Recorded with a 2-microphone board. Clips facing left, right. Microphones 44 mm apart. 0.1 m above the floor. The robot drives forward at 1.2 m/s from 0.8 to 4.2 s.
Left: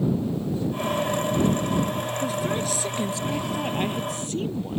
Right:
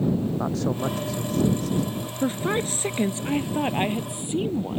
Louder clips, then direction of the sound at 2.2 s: Right 4 dB; 35° right (ahead or behind).